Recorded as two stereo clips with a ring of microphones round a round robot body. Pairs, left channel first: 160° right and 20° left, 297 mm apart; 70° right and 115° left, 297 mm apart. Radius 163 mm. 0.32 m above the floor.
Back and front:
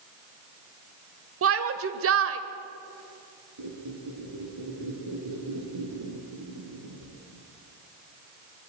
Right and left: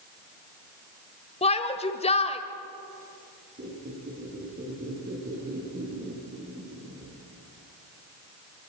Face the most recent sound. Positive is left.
turn(degrees=50)